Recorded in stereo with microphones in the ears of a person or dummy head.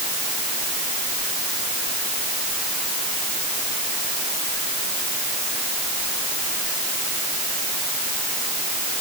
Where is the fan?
I don't hear a fan.